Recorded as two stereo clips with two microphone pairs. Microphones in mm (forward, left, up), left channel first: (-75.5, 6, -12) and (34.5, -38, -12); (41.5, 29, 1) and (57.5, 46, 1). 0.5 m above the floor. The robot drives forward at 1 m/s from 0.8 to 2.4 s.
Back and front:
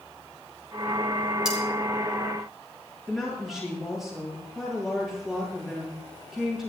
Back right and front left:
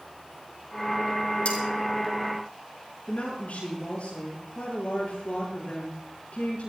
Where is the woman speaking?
110° right, 9.5 m.